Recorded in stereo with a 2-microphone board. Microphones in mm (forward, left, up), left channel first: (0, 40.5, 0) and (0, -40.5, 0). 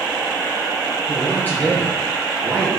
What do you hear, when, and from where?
1.1 s a man speaking: 25° left (ahead or behind), 5.5 m; by 2.8 s 10° left (ahead or behind), 3.5 m